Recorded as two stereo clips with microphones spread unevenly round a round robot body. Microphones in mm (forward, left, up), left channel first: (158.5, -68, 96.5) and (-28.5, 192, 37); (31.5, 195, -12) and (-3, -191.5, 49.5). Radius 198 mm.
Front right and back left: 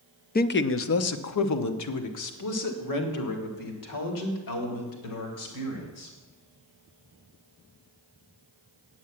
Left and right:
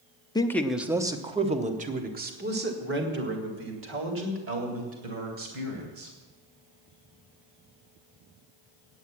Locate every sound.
0.3 s a man speaking: 15° left, 0.7 m; by 6.1 s 40° right, 3.5 m